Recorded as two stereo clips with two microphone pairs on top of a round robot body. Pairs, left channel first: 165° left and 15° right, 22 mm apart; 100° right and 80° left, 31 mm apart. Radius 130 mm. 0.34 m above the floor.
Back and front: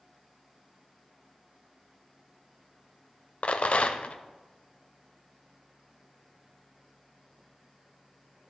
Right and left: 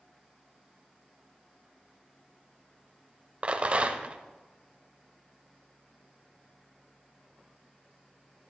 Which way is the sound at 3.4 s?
130° left.